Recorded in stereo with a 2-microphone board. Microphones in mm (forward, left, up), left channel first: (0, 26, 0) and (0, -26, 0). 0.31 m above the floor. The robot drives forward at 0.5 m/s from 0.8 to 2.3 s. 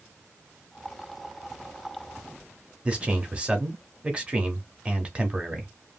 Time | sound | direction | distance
2.9 | a man speaking | 20° right (ahead or behind) | 0.8 m